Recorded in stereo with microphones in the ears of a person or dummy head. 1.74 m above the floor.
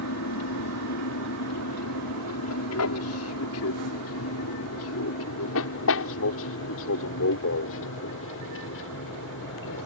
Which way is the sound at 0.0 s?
75° left (ahead or behind).